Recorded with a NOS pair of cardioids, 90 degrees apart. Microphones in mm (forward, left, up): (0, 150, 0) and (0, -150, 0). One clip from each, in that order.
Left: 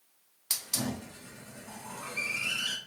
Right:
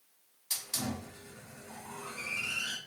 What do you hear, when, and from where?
0.5 s a hiss: 40° left, 1.0 m